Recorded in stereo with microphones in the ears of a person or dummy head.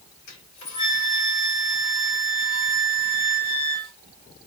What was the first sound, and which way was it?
A flute, 85° left.